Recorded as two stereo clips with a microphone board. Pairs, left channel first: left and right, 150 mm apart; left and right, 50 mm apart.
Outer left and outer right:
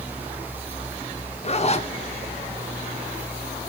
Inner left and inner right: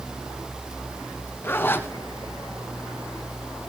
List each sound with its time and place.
1.4 s a zipper: 50° left (ahead or behind), 1.5 m